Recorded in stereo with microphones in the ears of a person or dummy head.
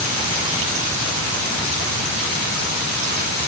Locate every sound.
Only background noise.